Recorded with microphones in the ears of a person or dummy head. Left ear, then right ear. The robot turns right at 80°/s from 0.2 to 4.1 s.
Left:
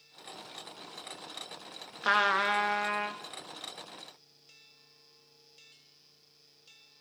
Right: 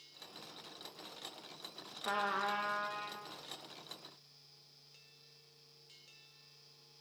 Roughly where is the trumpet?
Ahead left.